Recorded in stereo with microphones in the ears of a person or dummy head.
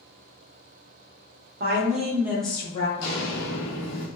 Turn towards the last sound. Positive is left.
turn(degrees=10)  # may be behind; listen again after turning